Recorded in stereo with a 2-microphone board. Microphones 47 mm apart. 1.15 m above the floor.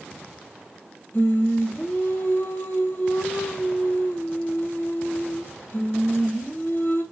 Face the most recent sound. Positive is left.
turn(degrees=55)  # may be behind; listen again after turning